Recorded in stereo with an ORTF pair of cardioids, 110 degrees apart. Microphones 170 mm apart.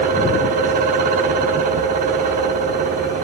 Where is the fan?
55° right, 0.9 m.